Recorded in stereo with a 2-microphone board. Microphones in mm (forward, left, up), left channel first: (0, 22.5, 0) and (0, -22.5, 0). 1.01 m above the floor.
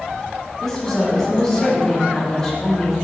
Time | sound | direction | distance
0.6 | a woman speaking | 15° left (ahead or behind) | 4.5 m